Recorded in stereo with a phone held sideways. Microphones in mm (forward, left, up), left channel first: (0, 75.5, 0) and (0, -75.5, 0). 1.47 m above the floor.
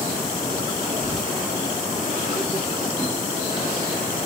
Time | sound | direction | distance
1.0 | whispering | centre (ahead or behind) | 2.5 m